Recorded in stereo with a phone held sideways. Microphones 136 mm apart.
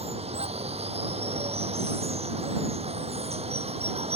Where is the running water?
50° right (ahead or behind).